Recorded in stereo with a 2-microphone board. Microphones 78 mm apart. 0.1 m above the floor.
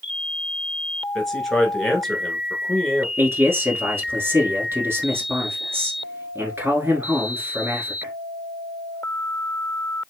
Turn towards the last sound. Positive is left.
turn(degrees=-25)  # may be behind; listen again after turning